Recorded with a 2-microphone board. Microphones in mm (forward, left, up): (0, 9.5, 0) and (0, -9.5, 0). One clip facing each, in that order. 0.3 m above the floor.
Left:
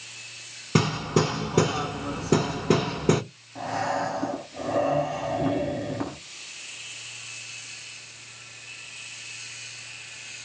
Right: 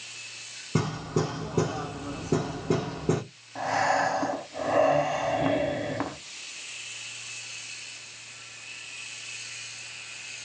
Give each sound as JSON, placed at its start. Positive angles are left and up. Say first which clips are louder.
{"t": 0.8, "sound": "hammering", "louder": "left 5 dB", "side_deg": 80, "distance_m": 0.6}
{"t": 3.5, "sound": "breathing", "louder": "right 3 dB", "side_deg": -40, "distance_m": 0.8}